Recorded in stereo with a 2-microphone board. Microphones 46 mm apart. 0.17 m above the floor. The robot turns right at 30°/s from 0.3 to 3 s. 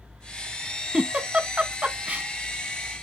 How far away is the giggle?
About 0.6 m.